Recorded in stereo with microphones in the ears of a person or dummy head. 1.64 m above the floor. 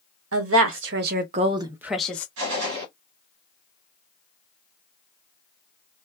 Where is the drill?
No drill in this recording.